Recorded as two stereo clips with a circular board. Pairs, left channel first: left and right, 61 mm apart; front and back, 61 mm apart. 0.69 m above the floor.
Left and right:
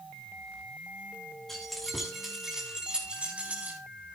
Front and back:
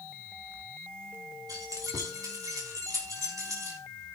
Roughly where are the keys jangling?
Behind.